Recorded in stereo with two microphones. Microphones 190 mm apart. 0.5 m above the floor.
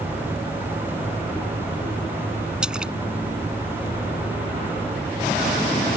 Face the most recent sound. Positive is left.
turn(degrees=-5)  # may be behind; listen again after turning